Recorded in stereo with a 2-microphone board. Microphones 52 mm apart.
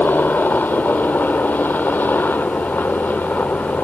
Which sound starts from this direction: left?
A helicopter, at 0.0 s.